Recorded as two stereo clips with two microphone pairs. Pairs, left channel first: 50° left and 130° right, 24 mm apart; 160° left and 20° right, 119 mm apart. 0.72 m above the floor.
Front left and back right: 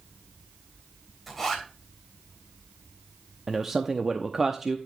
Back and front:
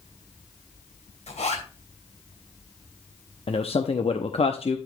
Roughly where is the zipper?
Behind left.